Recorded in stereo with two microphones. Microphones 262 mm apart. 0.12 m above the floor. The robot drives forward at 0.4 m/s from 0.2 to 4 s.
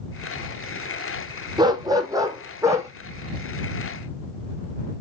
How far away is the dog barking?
About 1.2 m.